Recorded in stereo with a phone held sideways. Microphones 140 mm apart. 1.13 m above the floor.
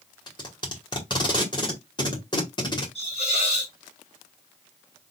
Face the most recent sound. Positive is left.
turn(degrees=45)  # may be behind; listen again after turning